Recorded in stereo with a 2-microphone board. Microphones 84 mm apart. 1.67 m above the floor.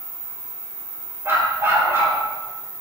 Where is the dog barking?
30° right (ahead or behind), 3.5 m.